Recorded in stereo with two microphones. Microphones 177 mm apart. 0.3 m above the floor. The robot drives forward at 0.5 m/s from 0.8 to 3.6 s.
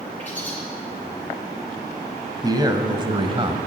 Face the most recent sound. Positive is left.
turn(degrees=-30)  # may be behind; listen again after turning